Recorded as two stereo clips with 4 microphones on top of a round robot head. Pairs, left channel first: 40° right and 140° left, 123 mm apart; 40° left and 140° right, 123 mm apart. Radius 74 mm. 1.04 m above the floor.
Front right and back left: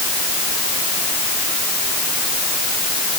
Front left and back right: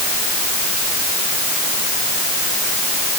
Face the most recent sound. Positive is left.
No sound to turn to.